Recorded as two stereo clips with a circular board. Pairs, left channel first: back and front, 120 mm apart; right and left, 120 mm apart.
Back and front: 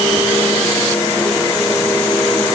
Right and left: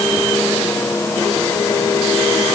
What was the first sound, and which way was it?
Only background noise.